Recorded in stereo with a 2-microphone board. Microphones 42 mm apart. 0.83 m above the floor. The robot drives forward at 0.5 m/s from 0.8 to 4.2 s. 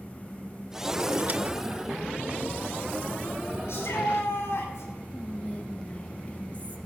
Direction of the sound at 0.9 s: 45° right (ahead or behind).